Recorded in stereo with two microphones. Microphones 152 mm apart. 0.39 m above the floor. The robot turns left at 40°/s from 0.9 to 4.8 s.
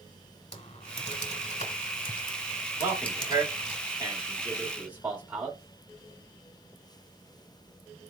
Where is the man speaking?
25° right (ahead or behind), 1.5 m; by 5.6 s 10° right (ahead or behind), 1.5 m.